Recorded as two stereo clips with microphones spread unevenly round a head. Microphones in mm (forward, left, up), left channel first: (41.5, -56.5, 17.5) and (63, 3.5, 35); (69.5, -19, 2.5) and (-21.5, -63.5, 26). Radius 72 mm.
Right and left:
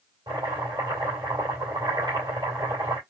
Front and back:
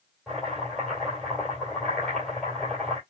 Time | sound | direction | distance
0.3 | chopping | 120° left | 3 m